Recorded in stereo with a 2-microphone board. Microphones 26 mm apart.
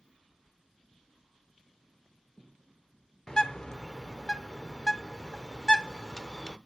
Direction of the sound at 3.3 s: 25° left (ahead or behind).